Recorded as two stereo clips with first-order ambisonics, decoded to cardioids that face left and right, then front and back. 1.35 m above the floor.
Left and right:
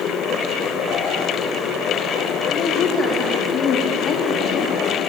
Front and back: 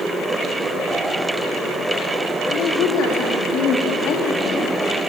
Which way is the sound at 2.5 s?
35° left.